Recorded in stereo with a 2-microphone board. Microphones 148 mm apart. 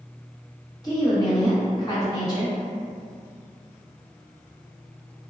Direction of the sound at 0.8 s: 30° left (ahead or behind).